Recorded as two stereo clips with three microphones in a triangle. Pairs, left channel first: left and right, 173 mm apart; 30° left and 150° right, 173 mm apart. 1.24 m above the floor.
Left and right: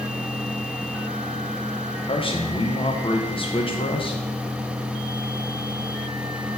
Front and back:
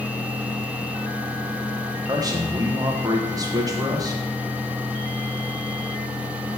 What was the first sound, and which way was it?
A man speaking, 145° left.